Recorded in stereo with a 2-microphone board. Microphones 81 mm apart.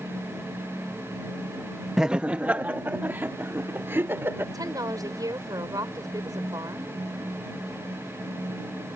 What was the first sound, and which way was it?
Laughter, 5° right (ahead or behind).